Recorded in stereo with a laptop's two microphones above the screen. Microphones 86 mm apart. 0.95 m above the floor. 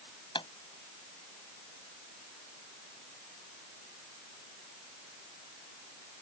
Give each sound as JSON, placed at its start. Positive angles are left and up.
{"t": 0.3, "sound": "a pop", "side_deg": 75}